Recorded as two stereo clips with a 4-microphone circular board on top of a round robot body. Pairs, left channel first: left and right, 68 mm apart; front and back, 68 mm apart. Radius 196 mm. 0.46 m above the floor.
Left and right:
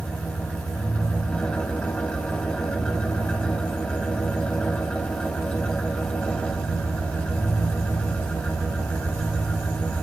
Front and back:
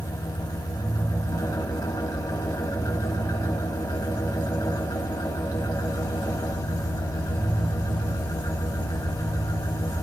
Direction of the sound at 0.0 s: 15° left.